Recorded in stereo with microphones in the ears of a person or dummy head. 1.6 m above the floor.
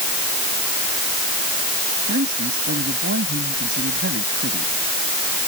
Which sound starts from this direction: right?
A man speaking, at 2.1 s.